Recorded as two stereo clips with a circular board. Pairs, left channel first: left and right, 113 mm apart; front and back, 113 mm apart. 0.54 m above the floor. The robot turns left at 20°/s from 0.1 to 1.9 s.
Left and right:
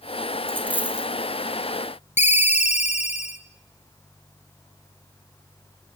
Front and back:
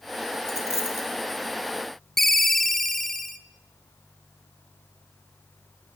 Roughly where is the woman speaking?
I don't hear a woman speaking.